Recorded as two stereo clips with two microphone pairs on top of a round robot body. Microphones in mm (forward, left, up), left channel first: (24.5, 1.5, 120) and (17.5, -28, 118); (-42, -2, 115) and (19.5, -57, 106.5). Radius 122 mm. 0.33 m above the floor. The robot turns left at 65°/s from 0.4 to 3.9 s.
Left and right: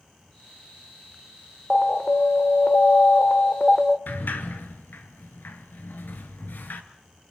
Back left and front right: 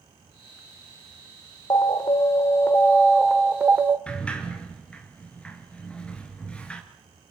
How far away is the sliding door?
About 1.4 m.